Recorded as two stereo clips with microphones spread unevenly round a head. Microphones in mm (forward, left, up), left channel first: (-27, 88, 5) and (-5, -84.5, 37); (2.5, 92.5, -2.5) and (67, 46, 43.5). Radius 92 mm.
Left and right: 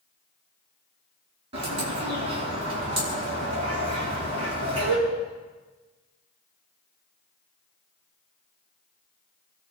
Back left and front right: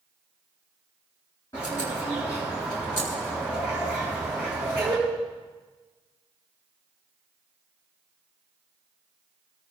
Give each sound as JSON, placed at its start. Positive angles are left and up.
{"t": 1.5, "sound": "a bird", "azimuth_deg": -140, "distance_m": 7.5}